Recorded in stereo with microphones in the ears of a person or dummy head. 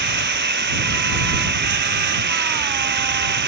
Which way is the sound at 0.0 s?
50° right (ahead or behind).